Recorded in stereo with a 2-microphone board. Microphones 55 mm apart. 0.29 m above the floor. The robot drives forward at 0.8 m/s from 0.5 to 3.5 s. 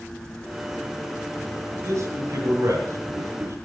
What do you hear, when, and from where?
1.8 s a man speaking: 65° right (ahead or behind), 5.5 m; by 3.6 s 55° right (ahead or behind), 6 m